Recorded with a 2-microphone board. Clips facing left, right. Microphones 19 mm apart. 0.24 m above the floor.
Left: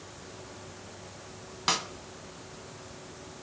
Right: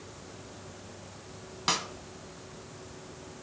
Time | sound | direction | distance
1.7 | a snare drum | 5° left (ahead or behind) | 0.5 m